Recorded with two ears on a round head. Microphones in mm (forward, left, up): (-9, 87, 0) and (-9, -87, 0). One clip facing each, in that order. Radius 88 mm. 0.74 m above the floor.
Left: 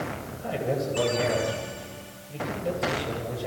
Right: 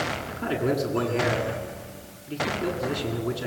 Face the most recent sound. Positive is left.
turn(degrees=-85)